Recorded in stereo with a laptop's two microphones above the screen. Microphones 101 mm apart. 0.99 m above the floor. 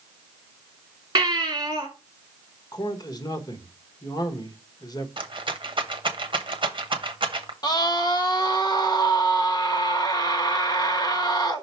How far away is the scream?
About 1.1 m.